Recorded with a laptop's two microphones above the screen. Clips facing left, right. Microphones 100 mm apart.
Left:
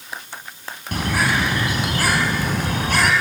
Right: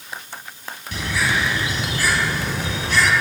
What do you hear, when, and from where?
0.9 s a bird: 55° left (ahead or behind), 2.5 m